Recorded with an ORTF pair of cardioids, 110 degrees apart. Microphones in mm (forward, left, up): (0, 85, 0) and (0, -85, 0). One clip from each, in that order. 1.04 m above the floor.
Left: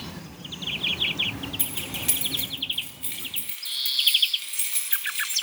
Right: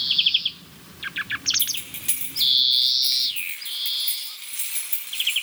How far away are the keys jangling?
About 2.5 m.